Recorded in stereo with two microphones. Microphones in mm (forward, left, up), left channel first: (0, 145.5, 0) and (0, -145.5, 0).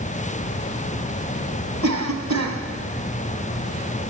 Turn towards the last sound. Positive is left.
turn(degrees=-70)  # may be behind; listen again after turning